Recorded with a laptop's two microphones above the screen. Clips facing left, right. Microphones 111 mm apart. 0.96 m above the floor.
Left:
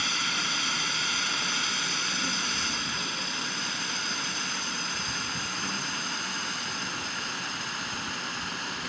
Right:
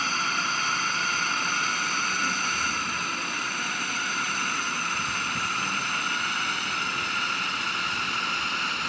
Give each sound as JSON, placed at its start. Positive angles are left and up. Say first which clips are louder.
{"t": 0.0, "sound": "a drone", "louder": "right 5 dB", "side_deg": -50}